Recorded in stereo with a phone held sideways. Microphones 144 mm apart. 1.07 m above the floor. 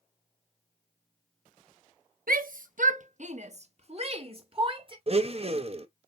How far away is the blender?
About 0.6 m.